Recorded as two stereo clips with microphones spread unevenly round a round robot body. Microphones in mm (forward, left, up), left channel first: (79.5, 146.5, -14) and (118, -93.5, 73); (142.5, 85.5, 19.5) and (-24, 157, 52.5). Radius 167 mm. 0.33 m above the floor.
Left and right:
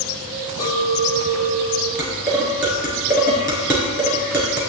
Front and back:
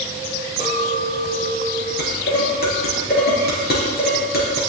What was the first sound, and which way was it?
A clink, 35° left.